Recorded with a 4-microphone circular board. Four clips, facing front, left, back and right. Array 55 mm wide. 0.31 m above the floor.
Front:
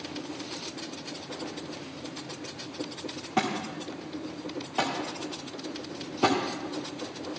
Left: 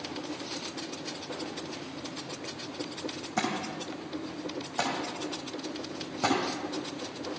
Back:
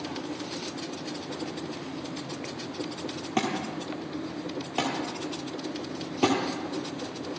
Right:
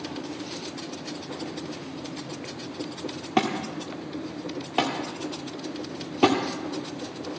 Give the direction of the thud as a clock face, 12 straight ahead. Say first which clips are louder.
Right 6 dB, even; 3 o'clock.